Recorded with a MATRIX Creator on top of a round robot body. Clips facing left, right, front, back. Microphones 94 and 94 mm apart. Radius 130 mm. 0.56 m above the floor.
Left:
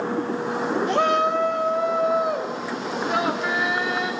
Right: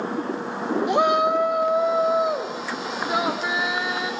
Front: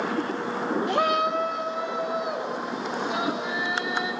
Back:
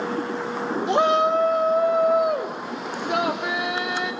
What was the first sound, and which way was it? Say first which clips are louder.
A shout: right 2 dB, back 7 dB; 145° right.